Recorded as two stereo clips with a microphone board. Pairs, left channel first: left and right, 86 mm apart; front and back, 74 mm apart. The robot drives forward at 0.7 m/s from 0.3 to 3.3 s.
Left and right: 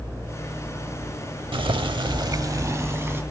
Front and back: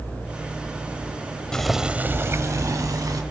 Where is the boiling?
80° right, 0.6 m; by 3.2 s 150° right, 1.2 m.